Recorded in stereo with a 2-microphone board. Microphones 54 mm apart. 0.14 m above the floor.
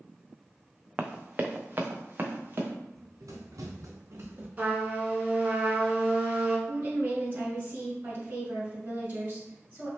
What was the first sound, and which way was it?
Running footsteps, 25° right (ahead or behind).